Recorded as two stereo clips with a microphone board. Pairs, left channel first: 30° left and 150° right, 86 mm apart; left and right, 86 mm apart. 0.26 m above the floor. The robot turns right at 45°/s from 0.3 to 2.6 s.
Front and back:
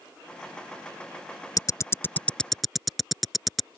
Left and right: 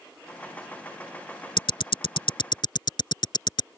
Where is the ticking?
75° left; by 3.7 s 120° left.